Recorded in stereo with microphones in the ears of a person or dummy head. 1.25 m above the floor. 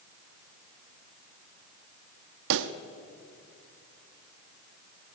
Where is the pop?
55° right (ahead or behind), 0.9 m.